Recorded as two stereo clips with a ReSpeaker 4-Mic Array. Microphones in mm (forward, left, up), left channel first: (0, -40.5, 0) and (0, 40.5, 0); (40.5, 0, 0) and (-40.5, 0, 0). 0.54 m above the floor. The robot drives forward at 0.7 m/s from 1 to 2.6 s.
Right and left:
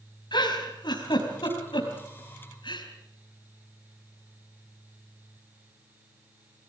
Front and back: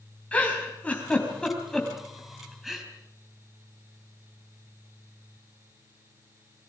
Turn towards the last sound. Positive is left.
turn(degrees=-90)